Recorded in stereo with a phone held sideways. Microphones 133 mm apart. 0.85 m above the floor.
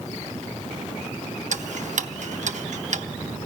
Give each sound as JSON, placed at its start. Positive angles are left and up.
{"t": 1.5, "sound": "ticking", "side_deg": -65, "distance_m": 0.7}